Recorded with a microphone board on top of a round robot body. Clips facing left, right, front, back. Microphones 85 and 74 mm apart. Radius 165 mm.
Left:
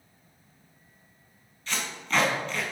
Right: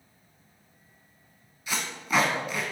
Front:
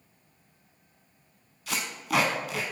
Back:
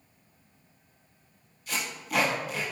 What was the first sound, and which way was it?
Tape being pulled, 10° right.